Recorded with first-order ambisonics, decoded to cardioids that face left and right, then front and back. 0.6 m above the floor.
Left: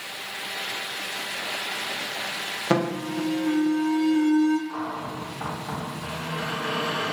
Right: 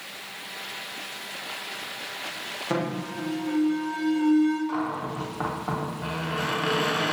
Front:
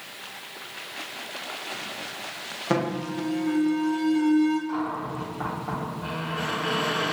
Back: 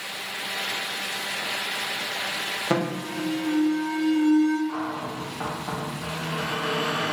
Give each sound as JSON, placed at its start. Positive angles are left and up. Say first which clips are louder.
{"t": 2.7, "sound": "an alarm", "louder": "left 5 dB, front 5 dB", "azimuth_deg": 100, "distance_m": 0.6}
{"t": 4.7, "sound": "a cupboard door", "louder": "right 2 dB, front 1 dB", "azimuth_deg": -90, "distance_m": 0.8}